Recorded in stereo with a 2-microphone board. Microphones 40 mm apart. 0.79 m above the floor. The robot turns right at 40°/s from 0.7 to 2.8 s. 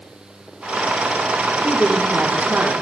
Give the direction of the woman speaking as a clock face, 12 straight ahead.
5 o'clock.